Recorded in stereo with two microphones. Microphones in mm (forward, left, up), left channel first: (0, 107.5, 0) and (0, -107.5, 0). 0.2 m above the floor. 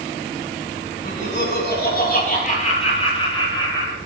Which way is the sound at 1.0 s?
60° left (ahead or behind).